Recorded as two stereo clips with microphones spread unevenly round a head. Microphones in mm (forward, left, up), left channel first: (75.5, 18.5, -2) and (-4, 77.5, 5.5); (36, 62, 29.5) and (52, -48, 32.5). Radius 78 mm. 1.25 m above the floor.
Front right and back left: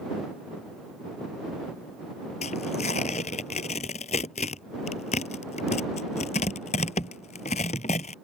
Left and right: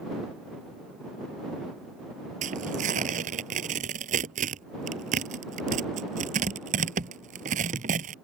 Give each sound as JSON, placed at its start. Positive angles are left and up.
{"t": 2.4, "sound": "tearing paper", "azimuth_deg": -85}